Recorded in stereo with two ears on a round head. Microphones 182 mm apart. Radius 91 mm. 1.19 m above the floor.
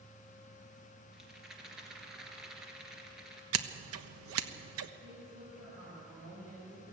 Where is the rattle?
5° right (ahead or behind), 3 m.